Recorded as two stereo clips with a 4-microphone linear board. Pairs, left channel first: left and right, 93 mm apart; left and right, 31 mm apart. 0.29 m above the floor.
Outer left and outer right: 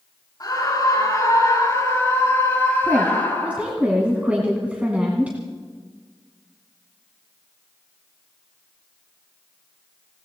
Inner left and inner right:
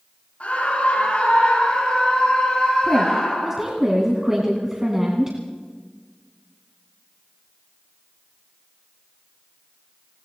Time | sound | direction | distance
0.4 | a scream | 40° left (ahead or behind) | 4.5 m
2.8 | a woman speaking | 15° right (ahead or behind) | 2 m